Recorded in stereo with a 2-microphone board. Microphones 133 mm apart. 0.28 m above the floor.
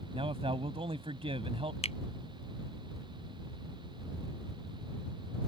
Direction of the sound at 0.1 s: 50° right (ahead or behind).